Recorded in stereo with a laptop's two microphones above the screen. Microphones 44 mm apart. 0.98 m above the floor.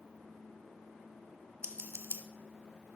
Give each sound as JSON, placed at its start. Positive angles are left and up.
{"t": 1.6, "sound": "scissors", "side_deg": -70, "distance_m": 0.6}